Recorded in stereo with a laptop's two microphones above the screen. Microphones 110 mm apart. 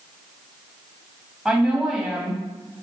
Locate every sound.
1.4 s a woman speaking: centre (ahead or behind), 2 m